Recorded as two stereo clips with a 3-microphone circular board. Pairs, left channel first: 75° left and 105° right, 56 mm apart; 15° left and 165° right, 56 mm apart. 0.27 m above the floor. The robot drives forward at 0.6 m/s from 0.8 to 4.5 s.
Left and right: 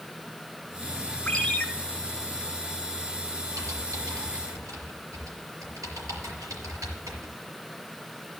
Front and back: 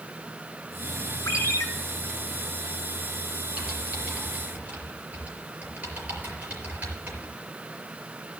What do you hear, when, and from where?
1.3 s a ringtone: 5° left, 1.9 m
3.6 s typing on a keyboard: 95° right, 4.5 m; by 7.3 s 105° right, 4.5 m